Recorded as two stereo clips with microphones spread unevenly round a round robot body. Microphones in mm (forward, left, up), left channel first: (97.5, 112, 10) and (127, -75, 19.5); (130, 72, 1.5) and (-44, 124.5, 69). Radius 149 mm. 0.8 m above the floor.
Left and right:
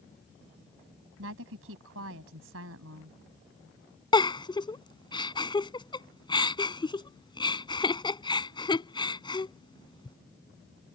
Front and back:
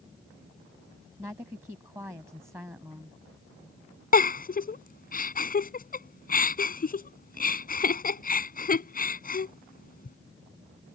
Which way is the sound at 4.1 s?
30° left.